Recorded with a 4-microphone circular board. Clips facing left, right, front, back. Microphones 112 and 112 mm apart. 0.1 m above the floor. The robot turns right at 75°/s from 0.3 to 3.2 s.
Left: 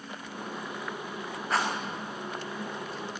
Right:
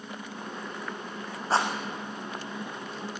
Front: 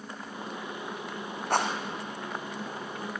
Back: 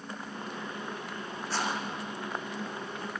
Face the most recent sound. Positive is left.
turn(degrees=95)